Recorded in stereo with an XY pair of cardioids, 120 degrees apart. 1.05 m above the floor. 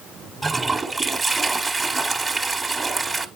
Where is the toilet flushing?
15° right, 1.4 m.